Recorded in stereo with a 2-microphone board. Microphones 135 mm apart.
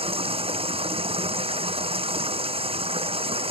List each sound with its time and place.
0.0 s running water: 45° right (ahead or behind)